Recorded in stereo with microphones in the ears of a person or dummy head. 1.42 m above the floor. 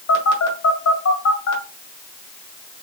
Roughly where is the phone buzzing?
Left.